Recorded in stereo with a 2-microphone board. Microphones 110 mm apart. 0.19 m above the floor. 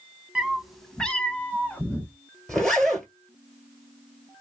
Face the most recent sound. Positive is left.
turn(degrees=5)  # may be behind; listen again after turning